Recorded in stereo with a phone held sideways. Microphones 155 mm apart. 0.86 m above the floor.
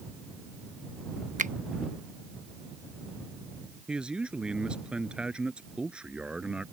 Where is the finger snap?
55° right (ahead or behind).